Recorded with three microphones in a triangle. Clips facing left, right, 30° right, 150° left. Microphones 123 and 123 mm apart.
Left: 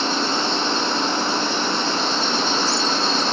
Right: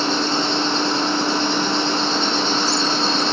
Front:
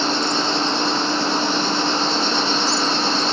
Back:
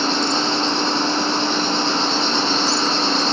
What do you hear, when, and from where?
0.0 s an insect: 145° right, 1.7 m